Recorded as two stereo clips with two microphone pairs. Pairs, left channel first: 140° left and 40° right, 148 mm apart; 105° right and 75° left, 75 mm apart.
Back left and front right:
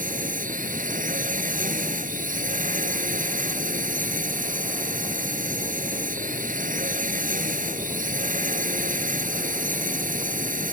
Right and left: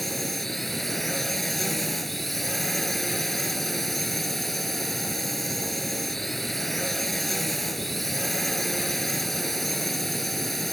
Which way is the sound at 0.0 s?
15° right.